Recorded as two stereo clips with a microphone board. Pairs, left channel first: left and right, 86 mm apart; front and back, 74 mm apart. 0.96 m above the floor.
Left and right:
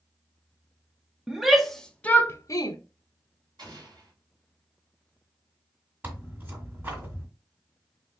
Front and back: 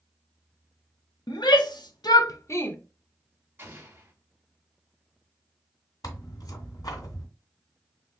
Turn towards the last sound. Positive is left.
turn(degrees=-25)